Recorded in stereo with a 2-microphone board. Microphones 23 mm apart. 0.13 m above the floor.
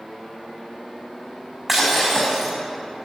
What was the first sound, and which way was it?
Breaking glass, 5° right (ahead or behind).